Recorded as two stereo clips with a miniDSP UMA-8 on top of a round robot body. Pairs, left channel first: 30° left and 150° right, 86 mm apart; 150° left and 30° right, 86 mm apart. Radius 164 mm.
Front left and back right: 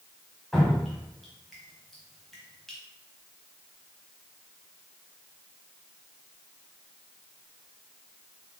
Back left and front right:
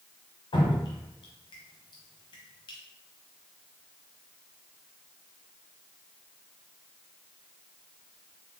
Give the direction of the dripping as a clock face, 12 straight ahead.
8 o'clock.